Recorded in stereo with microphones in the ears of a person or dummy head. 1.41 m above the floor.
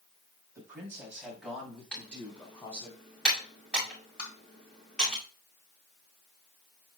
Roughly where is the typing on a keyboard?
Centre.